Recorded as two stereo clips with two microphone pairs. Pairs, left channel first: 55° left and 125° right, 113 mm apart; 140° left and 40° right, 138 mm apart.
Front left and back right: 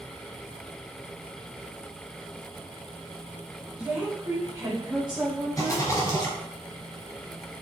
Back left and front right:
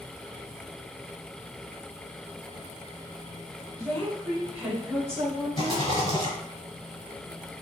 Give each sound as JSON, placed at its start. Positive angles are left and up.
{"t": 3.8, "sound": "a woman speaking", "azimuth_deg": 175, "distance_m": 1.1}
{"t": 5.6, "sound": "a rattle", "azimuth_deg": 95, "distance_m": 1.7}